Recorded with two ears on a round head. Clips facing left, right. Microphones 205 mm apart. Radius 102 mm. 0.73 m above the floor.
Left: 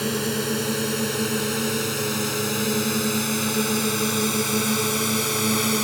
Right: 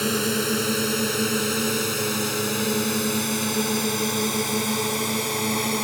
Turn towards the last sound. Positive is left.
turn(degrees=15)  # may be behind; listen again after turning